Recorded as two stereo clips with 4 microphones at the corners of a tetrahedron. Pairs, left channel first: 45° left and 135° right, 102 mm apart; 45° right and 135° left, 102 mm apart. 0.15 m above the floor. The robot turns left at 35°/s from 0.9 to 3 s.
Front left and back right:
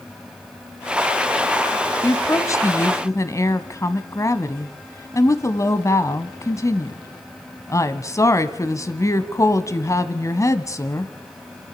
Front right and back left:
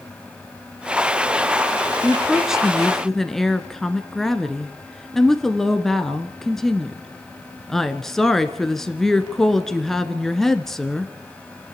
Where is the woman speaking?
70° left, 1.4 m; by 11.1 s 35° left, 1.4 m.